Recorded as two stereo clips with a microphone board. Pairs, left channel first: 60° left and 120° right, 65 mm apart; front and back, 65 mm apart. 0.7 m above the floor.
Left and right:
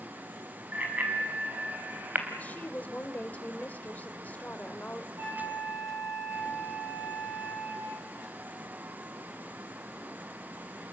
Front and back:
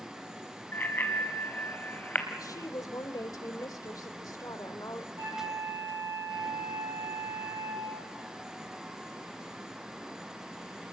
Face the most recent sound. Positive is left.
turn(degrees=-175)